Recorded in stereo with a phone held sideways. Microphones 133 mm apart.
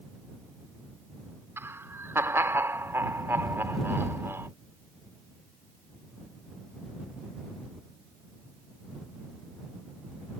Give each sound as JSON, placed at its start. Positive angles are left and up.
{"t": 1.6, "sound": "laughter", "side_deg": -20}